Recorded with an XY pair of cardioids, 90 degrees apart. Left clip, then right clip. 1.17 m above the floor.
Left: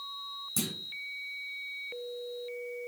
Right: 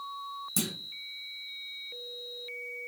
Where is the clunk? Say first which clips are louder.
Right 1 dB; 35° right, 1.9 m.